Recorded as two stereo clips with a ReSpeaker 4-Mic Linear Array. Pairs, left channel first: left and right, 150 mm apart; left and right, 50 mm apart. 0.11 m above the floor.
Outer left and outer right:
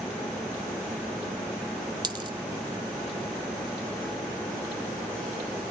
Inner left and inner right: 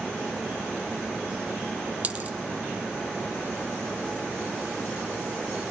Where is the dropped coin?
30° right (ahead or behind), 0.5 m.